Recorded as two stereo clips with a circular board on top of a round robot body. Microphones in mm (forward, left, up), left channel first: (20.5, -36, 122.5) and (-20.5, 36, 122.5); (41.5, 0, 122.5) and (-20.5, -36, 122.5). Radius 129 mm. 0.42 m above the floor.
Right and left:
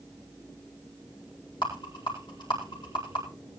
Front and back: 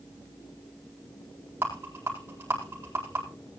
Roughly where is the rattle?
Right.